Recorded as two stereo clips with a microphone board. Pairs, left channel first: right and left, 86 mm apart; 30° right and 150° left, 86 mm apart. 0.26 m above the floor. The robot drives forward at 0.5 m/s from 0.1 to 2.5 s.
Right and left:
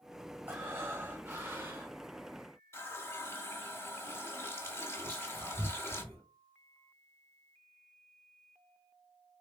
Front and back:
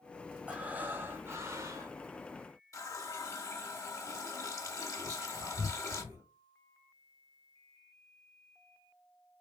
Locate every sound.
0.5 s breathing: 100° left, 1.1 m; by 2.0 s 150° left, 1.3 m
2.7 s a running tap: 50° right, 0.7 m
5.0 s whispering: 160° right, 3 m